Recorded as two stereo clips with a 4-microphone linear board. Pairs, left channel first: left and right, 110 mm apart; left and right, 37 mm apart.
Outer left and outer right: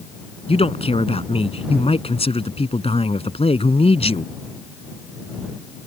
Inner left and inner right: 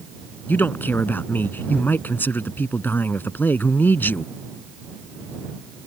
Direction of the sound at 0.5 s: 65° left (ahead or behind).